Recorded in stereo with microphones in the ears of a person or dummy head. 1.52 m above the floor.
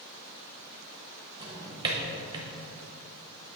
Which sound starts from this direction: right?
A drawer, at 1.4 s.